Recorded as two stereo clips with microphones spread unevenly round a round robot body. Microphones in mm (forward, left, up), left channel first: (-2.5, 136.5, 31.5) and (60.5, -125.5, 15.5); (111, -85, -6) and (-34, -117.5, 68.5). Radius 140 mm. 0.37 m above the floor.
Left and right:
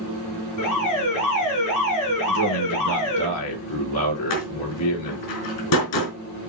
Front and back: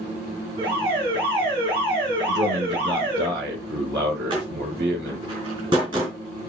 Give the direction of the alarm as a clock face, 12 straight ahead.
8 o'clock.